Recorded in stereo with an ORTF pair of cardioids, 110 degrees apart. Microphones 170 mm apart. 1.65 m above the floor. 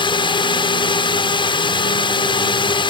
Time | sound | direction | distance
0.0 | a drone | 30° left | ?